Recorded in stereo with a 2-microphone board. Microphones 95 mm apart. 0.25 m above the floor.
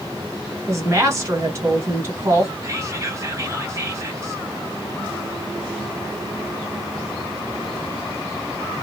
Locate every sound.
0.7 s a woman speaking: 30° right (ahead or behind), 1.6 m
2.6 s whispering: 30° right (ahead or behind), 1.1 m